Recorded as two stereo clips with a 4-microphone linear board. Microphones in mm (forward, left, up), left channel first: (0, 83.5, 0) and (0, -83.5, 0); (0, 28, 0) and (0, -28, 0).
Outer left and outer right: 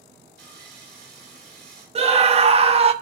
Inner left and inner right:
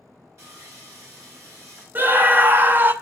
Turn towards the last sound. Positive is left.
turn(degrees=-35)  # may be behind; listen again after turning